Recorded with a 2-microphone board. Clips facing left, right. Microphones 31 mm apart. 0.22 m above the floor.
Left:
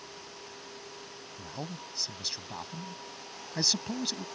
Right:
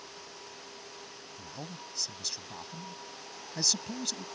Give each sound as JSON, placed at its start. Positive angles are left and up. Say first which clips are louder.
{"t": 1.4, "sound": "a man speaking", "louder": "left 4 dB", "side_deg": 20}